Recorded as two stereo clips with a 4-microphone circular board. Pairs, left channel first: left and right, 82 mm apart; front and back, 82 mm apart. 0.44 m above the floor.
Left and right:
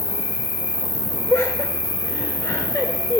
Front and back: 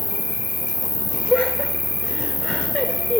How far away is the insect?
About 3 m.